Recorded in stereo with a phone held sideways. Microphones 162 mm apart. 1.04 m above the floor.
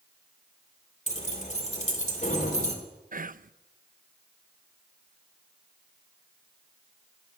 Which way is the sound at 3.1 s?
60° right (ahead or behind).